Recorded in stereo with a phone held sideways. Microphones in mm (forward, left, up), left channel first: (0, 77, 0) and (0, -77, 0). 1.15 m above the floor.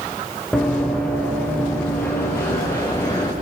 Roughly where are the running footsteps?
Centre.